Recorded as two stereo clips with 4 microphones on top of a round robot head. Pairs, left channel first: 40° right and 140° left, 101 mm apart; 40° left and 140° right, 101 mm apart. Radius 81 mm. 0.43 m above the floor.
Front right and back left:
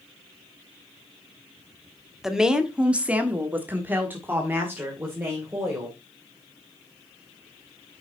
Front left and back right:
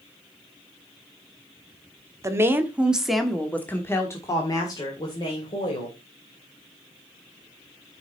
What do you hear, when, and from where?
2.2 s a woman speaking: 140° right, 1.5 m; by 6.0 s 70° left, 3 m